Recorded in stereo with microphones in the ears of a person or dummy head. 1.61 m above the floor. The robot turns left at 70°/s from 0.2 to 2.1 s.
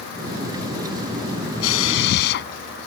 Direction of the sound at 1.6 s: 95° left.